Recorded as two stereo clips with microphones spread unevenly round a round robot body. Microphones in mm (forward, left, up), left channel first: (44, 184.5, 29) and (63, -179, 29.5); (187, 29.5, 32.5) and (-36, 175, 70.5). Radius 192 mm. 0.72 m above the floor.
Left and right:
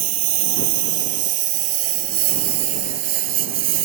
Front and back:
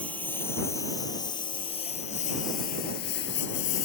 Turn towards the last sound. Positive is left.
turn(degrees=-95)